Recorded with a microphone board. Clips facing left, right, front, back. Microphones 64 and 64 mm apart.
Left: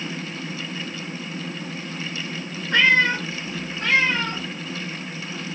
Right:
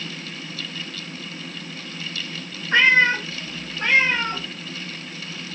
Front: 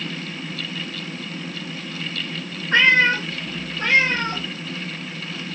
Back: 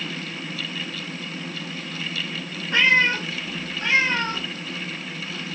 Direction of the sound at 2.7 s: 30° right.